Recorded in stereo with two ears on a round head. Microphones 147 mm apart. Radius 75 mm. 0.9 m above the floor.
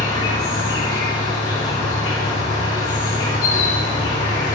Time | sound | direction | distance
0.0 | an insect | 30° left (ahead or behind) | 2.5 m